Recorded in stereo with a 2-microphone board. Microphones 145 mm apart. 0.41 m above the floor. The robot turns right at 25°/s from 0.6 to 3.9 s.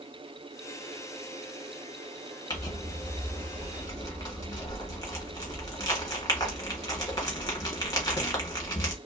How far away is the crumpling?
About 1.2 m.